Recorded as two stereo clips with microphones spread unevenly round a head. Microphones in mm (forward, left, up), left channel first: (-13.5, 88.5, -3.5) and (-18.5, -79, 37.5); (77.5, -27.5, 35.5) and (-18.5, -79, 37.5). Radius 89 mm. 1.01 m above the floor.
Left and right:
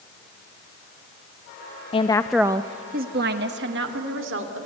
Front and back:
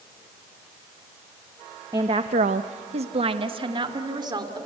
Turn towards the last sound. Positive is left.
turn(degrees=-100)